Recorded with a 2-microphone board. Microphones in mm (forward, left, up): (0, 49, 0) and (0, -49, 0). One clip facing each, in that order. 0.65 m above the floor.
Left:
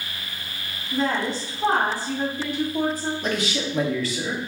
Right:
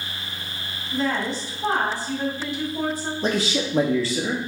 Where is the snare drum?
I don't hear a snare drum.